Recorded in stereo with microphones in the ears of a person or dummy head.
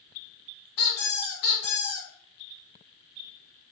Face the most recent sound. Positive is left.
turn(degrees=55)  # may be behind; listen again after turning